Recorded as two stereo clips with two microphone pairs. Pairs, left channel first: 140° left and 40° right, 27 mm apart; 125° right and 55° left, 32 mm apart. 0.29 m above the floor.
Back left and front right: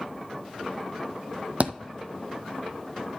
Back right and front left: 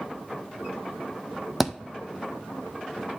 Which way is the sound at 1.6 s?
30° right.